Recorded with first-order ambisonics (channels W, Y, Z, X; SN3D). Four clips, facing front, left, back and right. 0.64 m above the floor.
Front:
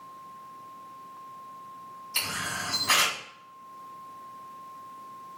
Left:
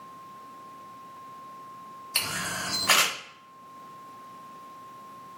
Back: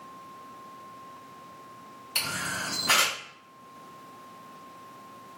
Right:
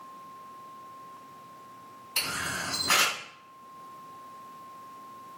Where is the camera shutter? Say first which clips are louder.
Left 1 dB, even; 115° left, 1.9 m.